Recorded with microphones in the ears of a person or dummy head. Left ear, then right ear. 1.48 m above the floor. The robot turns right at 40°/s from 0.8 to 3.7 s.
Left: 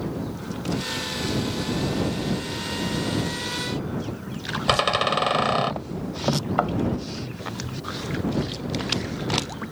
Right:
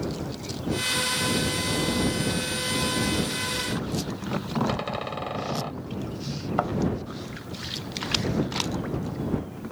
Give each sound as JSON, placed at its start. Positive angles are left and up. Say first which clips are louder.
{"t": 4.7, "sound": "a door slam", "louder": "left 9 dB", "side_deg": 40}
{"t": 6.6, "sound": "a thud", "louder": "left 1 dB", "side_deg": 5}